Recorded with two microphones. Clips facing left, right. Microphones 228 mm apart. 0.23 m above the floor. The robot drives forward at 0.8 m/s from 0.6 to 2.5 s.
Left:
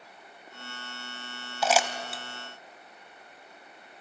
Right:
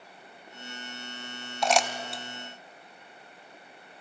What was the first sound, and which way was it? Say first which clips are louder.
Crumpling: even; 5° left (ahead or behind).